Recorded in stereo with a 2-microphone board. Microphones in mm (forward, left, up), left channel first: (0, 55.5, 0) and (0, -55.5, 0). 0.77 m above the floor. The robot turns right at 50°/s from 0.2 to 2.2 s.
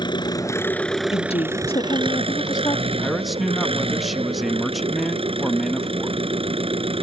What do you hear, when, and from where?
0.0 s an engine running: 140° left; by 7.0 s 120° right
1.1 s a woman speaking: 85° left; by 2.9 s 140° left
3.0 s a man speaking: centre (ahead or behind)